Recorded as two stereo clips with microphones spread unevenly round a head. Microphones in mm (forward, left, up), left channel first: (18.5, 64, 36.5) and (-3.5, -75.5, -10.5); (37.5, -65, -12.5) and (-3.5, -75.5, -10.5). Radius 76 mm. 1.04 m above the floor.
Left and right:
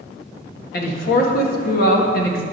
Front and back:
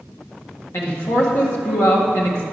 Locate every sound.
0.7 s a man speaking: 50° left, 1.7 m